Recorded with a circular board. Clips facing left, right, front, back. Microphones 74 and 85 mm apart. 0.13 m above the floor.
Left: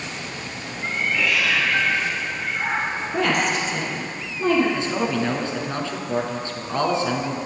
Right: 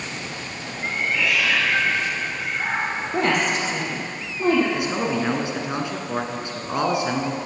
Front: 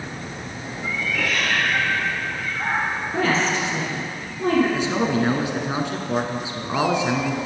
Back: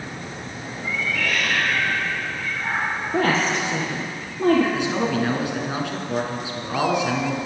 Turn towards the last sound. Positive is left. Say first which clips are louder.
# even, front 1 dB
turn(degrees=-35)